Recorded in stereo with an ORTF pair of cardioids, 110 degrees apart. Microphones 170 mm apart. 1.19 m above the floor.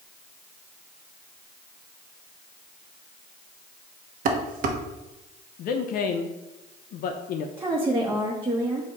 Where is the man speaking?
60° left, 0.6 m.